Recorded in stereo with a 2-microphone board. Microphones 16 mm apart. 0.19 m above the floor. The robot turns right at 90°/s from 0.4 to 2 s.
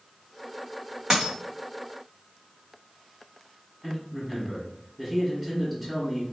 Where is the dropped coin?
30° right (ahead or behind), 1.1 m; by 1.4 s 50° right (ahead or behind), 1.1 m.